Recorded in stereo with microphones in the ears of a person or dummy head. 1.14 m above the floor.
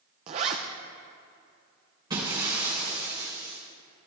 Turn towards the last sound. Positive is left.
turn(degrees=-20)  # may be behind; listen again after turning